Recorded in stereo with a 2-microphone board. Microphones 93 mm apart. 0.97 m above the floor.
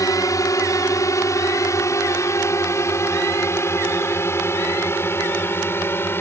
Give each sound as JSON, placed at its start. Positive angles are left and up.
{"t": 0.0, "sound": "a drone", "side_deg": 35}